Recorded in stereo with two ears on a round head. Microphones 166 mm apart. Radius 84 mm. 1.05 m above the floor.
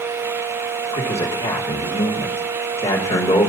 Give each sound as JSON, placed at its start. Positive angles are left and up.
{"t": 0.9, "sound": "a man speaking", "side_deg": 30, "distance_m": 2.5}